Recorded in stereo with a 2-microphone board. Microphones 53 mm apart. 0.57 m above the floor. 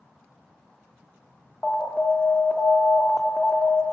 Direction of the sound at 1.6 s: 20° left (ahead or behind).